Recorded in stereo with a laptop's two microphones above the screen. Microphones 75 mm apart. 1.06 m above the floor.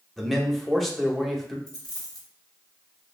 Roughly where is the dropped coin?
Left.